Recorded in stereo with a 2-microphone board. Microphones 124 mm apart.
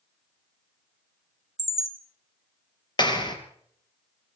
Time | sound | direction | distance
1.6 | a chime | 60° right (ahead or behind) | 2 m
3.0 | a clap | 35° left (ahead or behind) | 3 m